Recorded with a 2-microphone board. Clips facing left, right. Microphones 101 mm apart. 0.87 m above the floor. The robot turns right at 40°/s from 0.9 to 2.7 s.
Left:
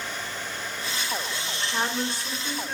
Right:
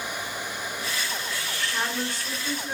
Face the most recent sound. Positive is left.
turn(degrees=-170)